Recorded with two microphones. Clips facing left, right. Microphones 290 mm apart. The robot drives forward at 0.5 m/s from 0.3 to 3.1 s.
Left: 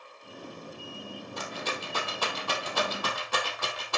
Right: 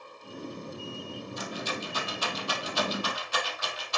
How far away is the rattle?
About 3 m.